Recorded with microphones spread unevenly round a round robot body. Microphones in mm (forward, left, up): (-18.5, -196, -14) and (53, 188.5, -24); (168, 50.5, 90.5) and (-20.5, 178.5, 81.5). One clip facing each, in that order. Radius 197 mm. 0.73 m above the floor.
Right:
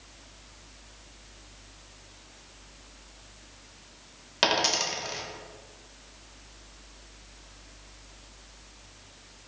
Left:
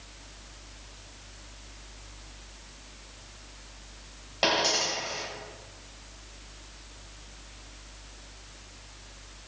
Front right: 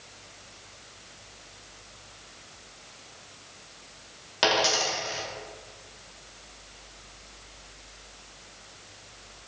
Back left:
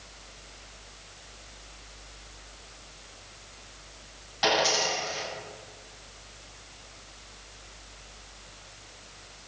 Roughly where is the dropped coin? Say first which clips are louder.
Left 1 dB, even; ahead right.